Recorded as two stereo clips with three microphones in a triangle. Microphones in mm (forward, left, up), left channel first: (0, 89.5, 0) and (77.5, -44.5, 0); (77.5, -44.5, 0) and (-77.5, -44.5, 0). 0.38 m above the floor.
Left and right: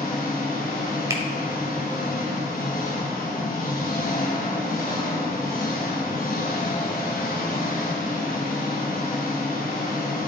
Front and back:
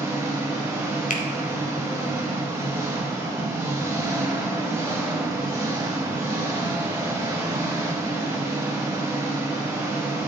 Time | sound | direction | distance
0.0 | an engine running | 115° left | 3 m
1.1 | a finger snap | 5° left | 1.3 m